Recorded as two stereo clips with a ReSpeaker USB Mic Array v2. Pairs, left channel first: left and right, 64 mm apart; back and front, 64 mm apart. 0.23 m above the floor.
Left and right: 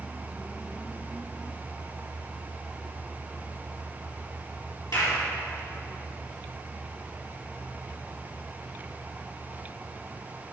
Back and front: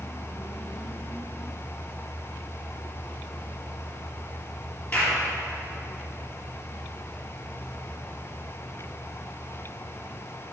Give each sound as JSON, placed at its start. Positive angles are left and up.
{"t": 4.9, "sound": "a clap", "azimuth_deg": 115, "distance_m": 4.0}